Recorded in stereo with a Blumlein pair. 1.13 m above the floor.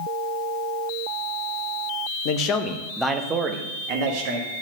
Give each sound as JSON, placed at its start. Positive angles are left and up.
{"t": 2.2, "sound": "a man speaking", "azimuth_deg": 45, "distance_m": 0.9}